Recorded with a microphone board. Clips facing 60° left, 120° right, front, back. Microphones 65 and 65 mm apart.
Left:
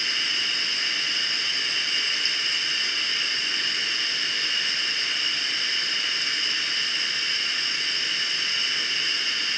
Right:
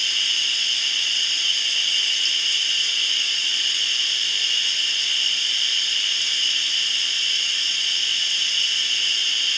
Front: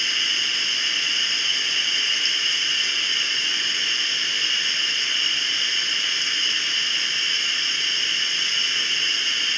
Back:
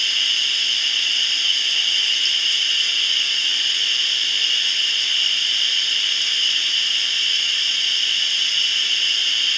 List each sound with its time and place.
0.0 s running water: 45° left, 1.7 m